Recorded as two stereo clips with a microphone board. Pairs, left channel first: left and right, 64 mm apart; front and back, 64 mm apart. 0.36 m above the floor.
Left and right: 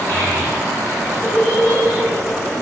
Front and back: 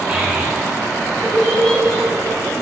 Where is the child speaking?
125° left, 1.2 m; by 2.6 s straight ahead, 1.2 m.